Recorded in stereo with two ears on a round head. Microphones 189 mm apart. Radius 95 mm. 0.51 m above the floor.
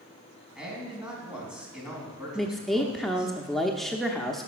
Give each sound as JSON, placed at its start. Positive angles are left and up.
{"t": 0.6, "sound": "a man speaking", "side_deg": -5, "distance_m": 3.5}
{"t": 2.4, "sound": "a woman speaking", "side_deg": 0, "distance_m": 0.7}